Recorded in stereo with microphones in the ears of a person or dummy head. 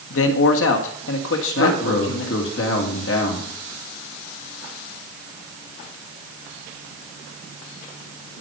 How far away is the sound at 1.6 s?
About 3 m.